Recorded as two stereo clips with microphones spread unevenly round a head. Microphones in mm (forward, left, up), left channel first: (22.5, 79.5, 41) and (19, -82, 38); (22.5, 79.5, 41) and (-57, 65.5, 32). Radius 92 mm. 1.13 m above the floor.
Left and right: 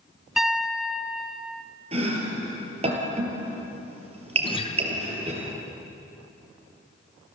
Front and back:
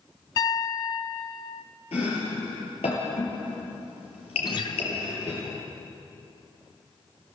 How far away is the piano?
About 0.7 m.